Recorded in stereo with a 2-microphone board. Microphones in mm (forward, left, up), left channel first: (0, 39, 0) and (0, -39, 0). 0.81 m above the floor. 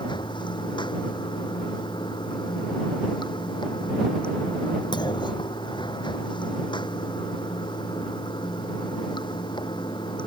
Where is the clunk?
70° left (ahead or behind).